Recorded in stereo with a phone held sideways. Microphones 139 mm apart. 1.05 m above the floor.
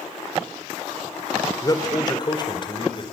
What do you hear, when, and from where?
1.6 s a man speaking: 30° left (ahead or behind), 3.5 m; by 3.0 s 40° left (ahead or behind), 4.5 m